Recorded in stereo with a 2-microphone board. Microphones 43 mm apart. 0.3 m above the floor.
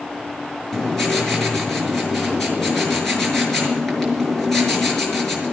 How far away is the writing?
About 6 m.